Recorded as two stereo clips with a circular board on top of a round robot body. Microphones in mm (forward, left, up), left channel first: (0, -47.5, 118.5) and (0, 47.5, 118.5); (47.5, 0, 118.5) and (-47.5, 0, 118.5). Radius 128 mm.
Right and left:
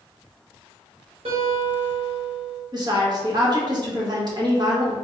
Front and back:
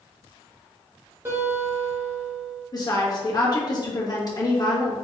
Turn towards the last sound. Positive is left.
turn(degrees=45)